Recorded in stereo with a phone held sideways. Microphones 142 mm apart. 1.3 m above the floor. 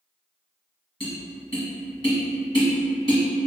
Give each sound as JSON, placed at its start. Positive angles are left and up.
{"t": 1.0, "sound": "tapping", "side_deg": 40, "distance_m": 1.1}